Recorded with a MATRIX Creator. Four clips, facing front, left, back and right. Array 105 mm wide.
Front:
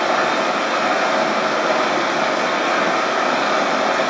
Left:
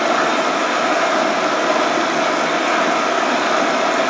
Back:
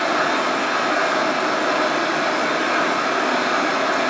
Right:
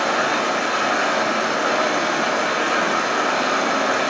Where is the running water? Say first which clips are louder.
Left 4 dB, front 2 dB; 65° left, 0.9 m.